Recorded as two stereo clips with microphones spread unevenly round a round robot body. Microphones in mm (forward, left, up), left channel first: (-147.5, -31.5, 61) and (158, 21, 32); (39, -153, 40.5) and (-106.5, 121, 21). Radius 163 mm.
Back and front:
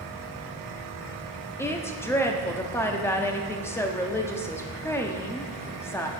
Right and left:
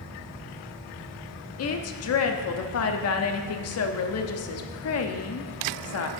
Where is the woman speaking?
85° right, 0.7 m.